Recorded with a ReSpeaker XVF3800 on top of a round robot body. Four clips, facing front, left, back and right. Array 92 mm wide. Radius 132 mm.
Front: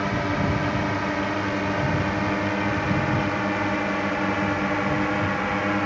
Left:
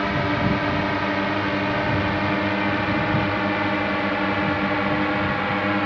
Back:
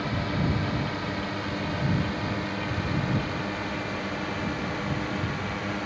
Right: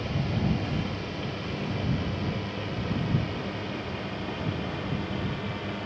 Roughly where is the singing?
No singing in this recording.